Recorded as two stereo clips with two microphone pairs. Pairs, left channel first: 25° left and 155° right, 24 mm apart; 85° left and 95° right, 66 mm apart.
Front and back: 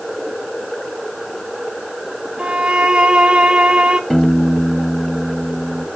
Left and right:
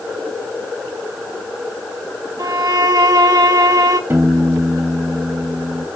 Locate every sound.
2.4 s a violin: 120° right, 1.2 m
4.1 s a piano: 40° right, 2 m